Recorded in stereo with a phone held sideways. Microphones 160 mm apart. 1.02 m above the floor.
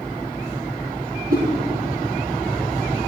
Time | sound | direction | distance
1.3 | a whoosh | 65° right (ahead or behind) | 5 m